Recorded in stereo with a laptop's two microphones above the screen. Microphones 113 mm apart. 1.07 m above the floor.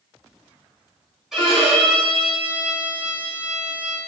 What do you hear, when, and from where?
1.3 s a violin: 5° right (ahead or behind), 2.5 m